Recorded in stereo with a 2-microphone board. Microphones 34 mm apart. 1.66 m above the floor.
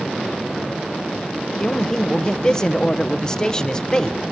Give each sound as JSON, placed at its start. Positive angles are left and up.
{"t": 1.6, "sound": "a man speaking", "side_deg": 15, "distance_m": 0.7}